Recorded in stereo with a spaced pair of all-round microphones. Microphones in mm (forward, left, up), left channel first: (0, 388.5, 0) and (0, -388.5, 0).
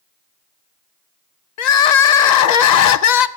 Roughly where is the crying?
Left.